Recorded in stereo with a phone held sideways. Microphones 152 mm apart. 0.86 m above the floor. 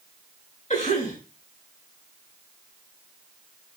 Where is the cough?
50° left (ahead or behind), 5.5 m.